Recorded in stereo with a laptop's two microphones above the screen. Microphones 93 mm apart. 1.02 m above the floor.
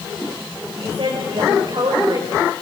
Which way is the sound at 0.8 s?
70° right (ahead or behind).